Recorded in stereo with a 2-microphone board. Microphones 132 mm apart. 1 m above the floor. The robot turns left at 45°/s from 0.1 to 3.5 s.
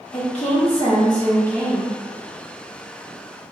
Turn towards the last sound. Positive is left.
turn(degrees=-70)